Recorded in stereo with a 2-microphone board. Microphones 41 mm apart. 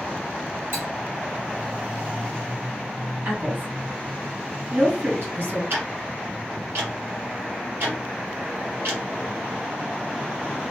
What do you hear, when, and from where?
0.7 s cutlery clinking: 80° right, 2.0 m
3.2 s a woman speaking: 70° right (ahead or behind), 2.5 m
5.7 s ticking: 70° right (ahead or behind), 1.9 m